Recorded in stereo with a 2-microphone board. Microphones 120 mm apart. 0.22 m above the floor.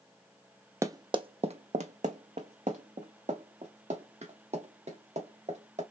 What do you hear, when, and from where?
0.8 s running footsteps: 25° right (ahead or behind), 0.5 m; by 5.8 s 65° right (ahead or behind), 2.5 m